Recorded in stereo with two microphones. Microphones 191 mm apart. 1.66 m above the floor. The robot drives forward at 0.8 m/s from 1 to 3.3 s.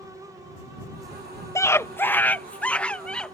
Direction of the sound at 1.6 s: 15° left (ahead or behind).